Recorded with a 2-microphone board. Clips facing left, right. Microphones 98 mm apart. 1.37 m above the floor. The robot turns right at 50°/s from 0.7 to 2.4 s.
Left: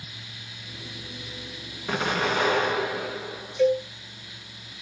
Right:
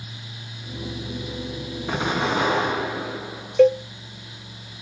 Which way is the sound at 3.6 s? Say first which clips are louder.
Right 6 dB; 65° right (ahead or behind).